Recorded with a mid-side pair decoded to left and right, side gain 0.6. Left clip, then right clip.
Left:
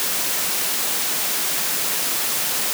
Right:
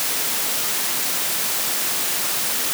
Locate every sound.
Only background noise.